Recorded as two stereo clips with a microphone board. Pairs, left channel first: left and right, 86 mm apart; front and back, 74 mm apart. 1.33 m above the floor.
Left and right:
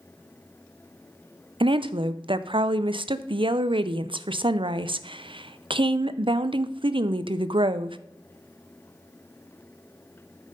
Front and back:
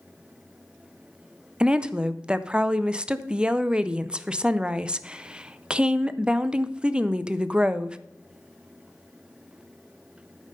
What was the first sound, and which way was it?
A woman speaking, 105° right.